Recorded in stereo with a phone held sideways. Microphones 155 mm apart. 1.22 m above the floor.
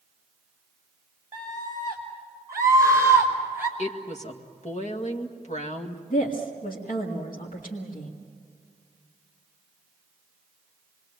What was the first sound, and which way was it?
A scream, 30° right (ahead or behind).